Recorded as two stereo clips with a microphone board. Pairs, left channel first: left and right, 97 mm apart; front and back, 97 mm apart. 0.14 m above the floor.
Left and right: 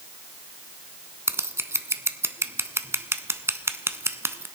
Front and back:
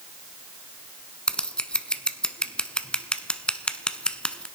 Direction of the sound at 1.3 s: 70° right.